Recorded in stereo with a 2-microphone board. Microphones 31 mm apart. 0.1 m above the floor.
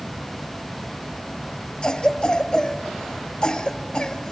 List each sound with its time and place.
1.8 s a cough: 35° left (ahead or behind), 1.4 m